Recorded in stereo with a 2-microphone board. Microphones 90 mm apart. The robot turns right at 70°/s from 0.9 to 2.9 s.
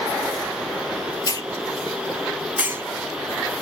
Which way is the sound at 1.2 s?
50° left (ahead or behind).